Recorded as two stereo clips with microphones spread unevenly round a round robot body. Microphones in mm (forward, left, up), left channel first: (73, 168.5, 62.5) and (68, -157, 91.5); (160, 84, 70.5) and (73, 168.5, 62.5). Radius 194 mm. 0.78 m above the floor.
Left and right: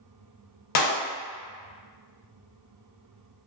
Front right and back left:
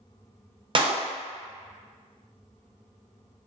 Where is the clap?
85° left, 0.8 m.